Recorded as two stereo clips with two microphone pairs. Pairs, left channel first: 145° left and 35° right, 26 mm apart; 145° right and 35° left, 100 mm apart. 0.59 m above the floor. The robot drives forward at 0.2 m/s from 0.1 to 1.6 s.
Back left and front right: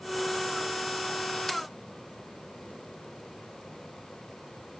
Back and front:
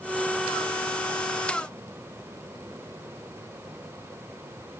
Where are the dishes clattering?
I don't hear dishes clattering.